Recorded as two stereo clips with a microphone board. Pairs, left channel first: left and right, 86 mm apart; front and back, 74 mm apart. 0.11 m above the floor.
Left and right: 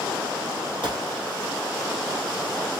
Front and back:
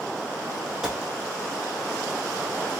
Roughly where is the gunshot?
Right.